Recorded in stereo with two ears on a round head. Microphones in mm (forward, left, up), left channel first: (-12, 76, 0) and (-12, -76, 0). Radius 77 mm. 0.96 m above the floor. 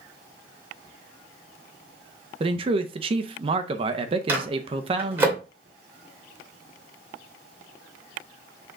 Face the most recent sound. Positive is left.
turn(degrees=-15)  # may be behind; listen again after turning